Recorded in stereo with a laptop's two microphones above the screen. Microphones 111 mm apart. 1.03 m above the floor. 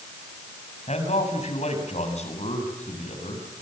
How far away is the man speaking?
About 7 m.